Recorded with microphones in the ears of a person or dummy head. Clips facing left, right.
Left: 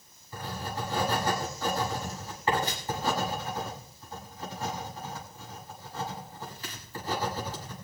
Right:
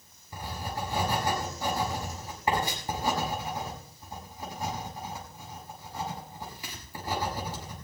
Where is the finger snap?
No finger snap in this recording.